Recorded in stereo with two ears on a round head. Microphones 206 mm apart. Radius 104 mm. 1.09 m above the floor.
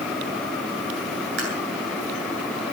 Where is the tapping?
55° right (ahead or behind), 9.5 m.